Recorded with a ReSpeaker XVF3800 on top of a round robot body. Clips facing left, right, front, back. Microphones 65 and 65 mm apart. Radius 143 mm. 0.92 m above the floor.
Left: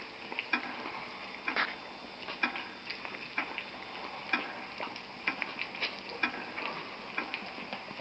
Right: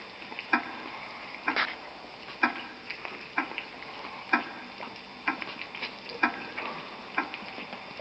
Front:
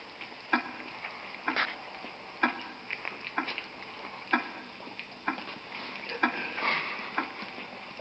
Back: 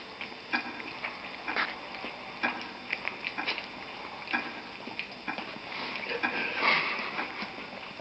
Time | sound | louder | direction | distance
0.5 | ticking | right 6 dB, front 5 dB | 35° right | 2.5 m